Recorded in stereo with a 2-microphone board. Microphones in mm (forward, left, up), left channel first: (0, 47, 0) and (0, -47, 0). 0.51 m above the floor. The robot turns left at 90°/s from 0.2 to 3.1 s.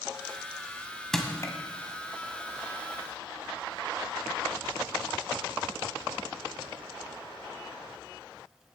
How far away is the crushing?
About 1.7 m.